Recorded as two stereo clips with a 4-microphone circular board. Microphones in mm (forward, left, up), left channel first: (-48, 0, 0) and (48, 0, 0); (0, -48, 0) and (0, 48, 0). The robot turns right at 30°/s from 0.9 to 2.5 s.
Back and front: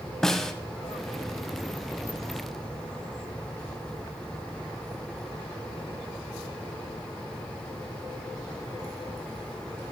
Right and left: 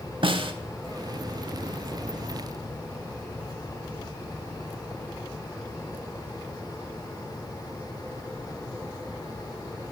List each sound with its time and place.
0.2 s a snare drum: 95° left, 0.6 m